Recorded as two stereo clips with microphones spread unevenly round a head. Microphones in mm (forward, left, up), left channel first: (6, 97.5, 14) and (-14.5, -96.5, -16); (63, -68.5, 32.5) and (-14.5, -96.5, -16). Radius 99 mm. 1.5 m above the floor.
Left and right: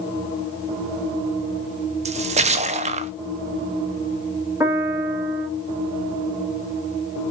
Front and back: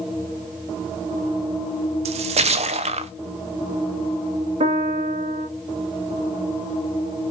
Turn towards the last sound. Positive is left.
turn(degrees=180)